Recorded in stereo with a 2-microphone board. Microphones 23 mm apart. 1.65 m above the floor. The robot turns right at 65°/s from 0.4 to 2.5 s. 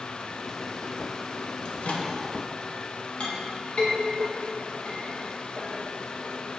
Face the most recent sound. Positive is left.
turn(degrees=50)  # may be behind; listen again after turning